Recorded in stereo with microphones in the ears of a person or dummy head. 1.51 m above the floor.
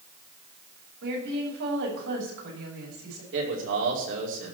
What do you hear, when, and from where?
1.0 s a woman speaking: 80° right, 6.5 m
3.3 s a man speaking: 75° right (ahead or behind), 4.5 m